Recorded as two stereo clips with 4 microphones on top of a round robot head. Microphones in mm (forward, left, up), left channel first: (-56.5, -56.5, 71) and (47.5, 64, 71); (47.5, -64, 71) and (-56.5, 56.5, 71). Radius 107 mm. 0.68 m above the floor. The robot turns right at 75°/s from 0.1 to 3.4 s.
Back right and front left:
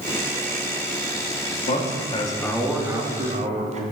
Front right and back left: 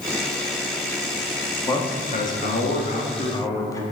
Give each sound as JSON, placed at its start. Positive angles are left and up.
{"t": 1.7, "sound": "a man speaking", "azimuth_deg": -115, "distance_m": 1.3}